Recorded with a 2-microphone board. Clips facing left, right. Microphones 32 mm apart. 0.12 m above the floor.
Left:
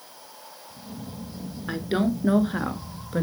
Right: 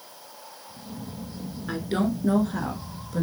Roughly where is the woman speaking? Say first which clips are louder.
Left 1 dB; centre.